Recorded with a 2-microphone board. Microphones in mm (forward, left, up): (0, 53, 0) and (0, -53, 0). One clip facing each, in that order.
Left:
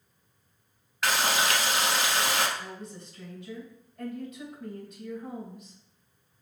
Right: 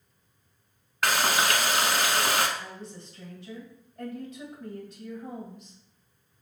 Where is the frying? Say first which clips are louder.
Right 2 dB; 55° right (ahead or behind), 0.8 m.